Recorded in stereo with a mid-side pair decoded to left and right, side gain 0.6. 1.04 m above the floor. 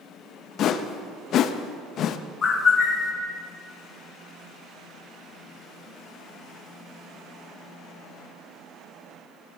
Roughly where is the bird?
Ahead left.